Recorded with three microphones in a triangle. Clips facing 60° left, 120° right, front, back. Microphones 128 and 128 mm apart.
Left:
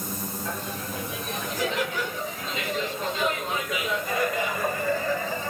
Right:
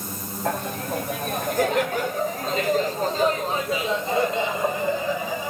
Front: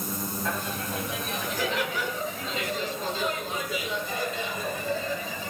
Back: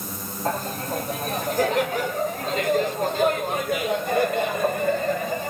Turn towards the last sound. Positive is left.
turn(degrees=165)